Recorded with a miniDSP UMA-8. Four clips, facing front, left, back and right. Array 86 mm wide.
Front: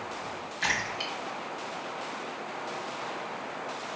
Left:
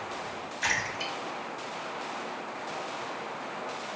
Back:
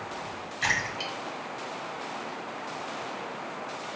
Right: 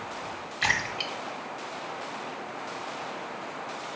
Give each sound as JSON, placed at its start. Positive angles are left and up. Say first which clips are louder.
{"t": 0.6, "sound": "a splash", "louder": "right 3 dB, back 2 dB", "azimuth_deg": -90, "distance_m": 1.2}